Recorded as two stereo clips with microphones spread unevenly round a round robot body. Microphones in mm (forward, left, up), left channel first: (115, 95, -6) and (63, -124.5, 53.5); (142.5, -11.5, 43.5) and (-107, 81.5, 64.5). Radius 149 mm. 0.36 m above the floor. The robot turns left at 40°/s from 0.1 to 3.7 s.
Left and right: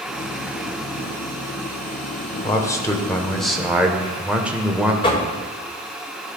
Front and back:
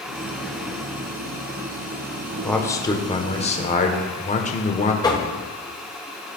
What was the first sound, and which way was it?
A man speaking, 55° left.